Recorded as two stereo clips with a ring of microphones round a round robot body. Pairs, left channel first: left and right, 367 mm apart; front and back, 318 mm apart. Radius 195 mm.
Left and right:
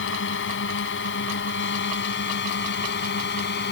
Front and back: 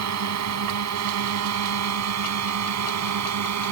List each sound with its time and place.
0.0 s a drone: 145° left; by 3.7 s 150° left